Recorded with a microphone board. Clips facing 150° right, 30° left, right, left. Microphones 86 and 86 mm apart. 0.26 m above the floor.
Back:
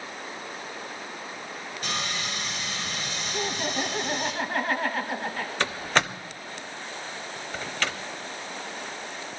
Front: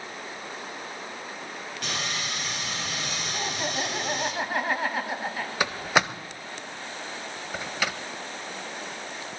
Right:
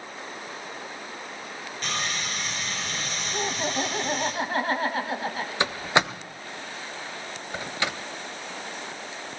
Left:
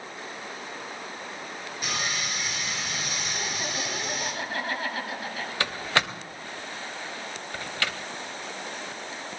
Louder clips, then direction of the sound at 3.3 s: Back 2 dB, right 8 dB; 50° right.